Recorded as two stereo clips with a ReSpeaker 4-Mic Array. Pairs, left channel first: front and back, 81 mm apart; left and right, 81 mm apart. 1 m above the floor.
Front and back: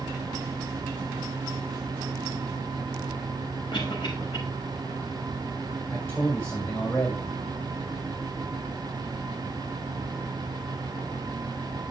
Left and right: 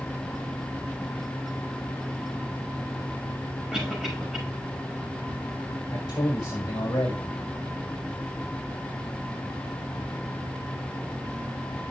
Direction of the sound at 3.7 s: 5° right.